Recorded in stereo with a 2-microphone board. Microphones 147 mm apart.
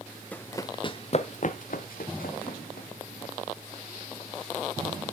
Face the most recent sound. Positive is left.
turn(degrees=85)